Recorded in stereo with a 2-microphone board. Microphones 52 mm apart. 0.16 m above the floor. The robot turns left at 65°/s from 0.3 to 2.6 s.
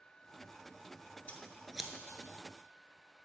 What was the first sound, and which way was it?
Scissors, 25° left (ahead or behind).